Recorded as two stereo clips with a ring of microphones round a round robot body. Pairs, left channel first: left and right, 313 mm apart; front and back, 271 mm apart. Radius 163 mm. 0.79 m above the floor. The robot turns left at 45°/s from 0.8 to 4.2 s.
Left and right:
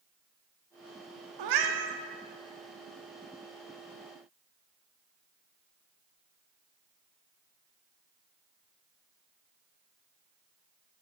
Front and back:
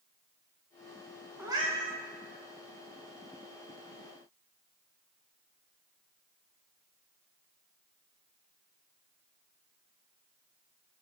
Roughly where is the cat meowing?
Right.